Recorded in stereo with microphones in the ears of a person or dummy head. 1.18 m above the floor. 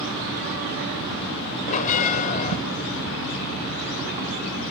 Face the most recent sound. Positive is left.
turn(degrees=45)  # may be behind; listen again after turning